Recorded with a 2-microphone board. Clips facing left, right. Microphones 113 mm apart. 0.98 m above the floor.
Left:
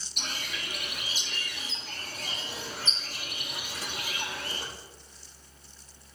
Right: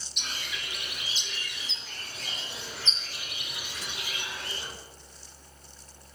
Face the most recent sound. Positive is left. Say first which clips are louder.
# left 1 dB
turn(degrees=50)  # may be behind; listen again after turning